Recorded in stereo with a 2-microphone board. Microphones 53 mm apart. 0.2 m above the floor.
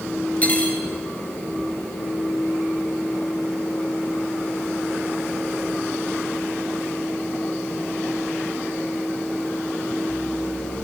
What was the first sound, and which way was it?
Cutlery clinking, 30° left (ahead or behind).